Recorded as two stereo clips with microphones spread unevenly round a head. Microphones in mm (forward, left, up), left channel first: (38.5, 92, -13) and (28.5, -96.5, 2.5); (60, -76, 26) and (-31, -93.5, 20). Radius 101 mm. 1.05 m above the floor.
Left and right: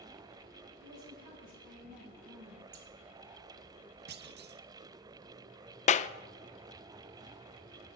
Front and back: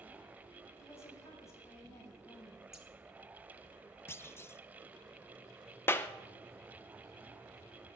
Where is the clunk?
55° right, 0.9 m.